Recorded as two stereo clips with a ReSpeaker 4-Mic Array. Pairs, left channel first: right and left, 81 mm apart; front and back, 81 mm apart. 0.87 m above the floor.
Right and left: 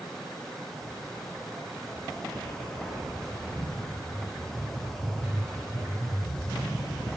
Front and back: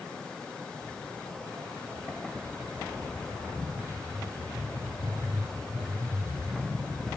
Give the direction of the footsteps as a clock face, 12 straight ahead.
5 o'clock.